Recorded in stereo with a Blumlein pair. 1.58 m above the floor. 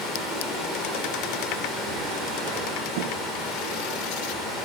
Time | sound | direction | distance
0.0 | running water | 10° left | 1.6 m